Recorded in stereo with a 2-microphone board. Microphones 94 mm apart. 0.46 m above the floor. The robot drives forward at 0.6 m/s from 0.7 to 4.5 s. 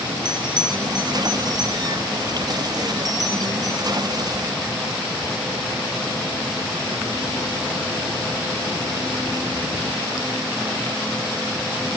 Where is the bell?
50° right (ahead or behind), 6 m; by 3.8 s 40° right (ahead or behind), 7.5 m.